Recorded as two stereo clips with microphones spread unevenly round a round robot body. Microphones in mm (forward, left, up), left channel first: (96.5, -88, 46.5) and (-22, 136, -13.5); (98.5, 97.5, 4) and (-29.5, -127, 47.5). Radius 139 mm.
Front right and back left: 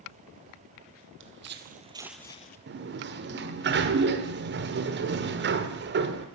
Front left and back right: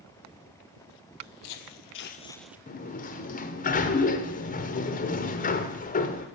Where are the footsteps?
70° left, 0.9 m; by 2.6 s 50° right, 0.5 m.